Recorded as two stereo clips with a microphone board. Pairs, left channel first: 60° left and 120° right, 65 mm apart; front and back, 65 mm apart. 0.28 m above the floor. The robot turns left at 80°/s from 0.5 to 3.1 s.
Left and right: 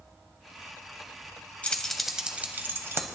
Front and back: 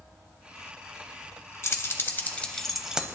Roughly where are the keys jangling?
Ahead.